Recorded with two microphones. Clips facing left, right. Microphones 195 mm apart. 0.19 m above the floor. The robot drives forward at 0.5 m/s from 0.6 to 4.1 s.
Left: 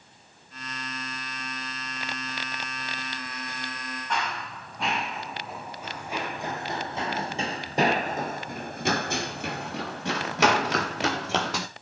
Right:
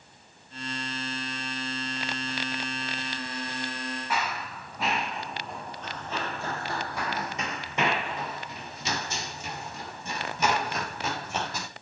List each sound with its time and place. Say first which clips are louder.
4.1 s running footsteps: left 3 dB; 5° right (ahead or behind), 3 m; by 11.7 s 85° left, 3 m